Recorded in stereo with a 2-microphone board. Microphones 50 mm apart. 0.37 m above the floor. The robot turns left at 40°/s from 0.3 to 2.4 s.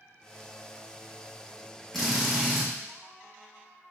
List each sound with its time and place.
1.9 s a drill: 5° left (ahead or behind), 2.5 m; by 2.7 s 10° right (ahead or behind), 2.5 m